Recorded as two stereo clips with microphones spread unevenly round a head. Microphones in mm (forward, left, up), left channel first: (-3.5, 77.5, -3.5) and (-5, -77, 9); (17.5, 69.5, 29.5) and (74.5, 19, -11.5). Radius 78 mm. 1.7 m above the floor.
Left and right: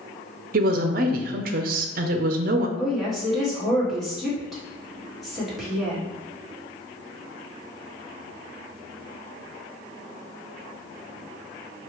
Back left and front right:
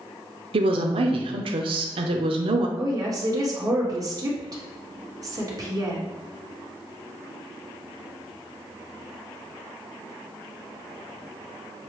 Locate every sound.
0.5 s a woman speaking: 55° right, 0.6 m
2.8 s a woman speaking: straight ahead, 1.7 m